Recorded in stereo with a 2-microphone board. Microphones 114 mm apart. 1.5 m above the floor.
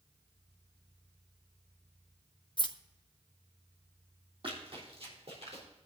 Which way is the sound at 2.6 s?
40° left (ahead or behind).